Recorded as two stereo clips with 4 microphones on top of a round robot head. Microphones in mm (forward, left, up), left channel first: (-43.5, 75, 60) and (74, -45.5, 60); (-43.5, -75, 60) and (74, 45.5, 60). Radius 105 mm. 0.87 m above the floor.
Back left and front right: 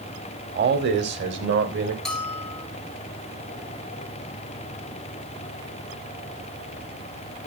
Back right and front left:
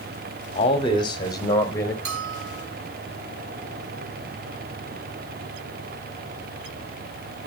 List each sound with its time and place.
0.6 s a man speaking: 75° right, 2 m; by 1.9 s 60° right, 4 m
2.0 s a bell: 50° left, 4 m